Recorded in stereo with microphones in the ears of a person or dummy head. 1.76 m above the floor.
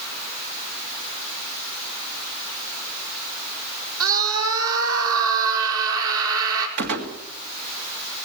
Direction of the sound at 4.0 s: 80° right.